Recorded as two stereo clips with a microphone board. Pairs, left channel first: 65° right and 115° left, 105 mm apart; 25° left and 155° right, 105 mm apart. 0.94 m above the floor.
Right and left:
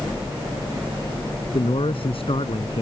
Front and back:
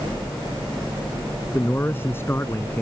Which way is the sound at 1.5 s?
45° right.